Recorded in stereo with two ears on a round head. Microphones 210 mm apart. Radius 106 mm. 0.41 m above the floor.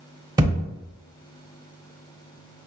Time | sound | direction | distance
0.4 | a thud | 15° right (ahead or behind) | 0.6 m